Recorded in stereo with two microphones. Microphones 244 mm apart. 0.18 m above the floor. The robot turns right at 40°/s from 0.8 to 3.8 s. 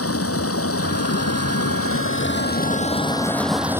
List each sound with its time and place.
0.0 s running water: 70° left; by 3.8 s 170° right